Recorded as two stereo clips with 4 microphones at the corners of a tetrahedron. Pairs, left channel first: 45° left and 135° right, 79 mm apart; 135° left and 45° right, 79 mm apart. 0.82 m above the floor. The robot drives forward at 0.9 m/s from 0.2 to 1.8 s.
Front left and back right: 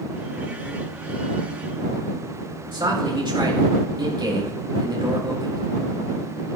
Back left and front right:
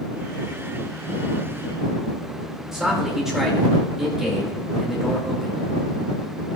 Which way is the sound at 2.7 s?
130° right.